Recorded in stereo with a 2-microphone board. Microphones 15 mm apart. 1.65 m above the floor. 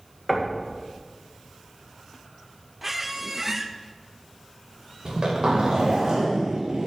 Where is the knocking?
Centre (ahead or behind), 1.9 m.